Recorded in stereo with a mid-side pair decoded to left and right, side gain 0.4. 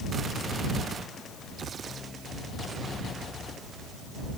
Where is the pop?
No pop in this recording.